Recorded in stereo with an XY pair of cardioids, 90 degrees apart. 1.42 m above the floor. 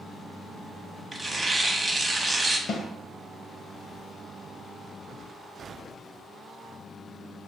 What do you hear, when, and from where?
1.1 s tearing paper: 20° right, 0.7 m
2.7 s a snare drum: 65° left, 0.7 m